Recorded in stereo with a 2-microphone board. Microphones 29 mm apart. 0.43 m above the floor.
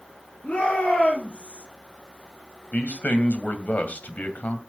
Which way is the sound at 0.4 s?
50° left (ahead or behind).